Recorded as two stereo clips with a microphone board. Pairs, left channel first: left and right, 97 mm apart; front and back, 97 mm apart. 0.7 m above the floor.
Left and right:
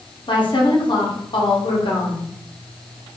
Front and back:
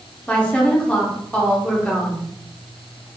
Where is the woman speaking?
75° left, 0.9 m.